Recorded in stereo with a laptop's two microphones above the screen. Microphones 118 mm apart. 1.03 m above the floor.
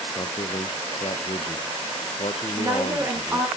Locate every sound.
0.1 s a man speaking: 55° left (ahead or behind), 0.6 m
2.6 s a woman speaking: 20° right (ahead or behind), 4 m